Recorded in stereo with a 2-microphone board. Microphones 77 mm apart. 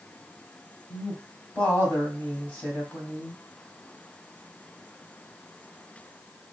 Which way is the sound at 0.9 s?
25° left (ahead or behind).